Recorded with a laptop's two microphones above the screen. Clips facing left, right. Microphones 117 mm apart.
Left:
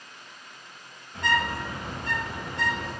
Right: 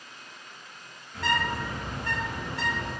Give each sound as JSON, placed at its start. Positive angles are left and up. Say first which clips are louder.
{"t": 1.1, "sound": "a bird", "louder": "left 1 dB", "side_deg": 25, "distance_m": 1.3}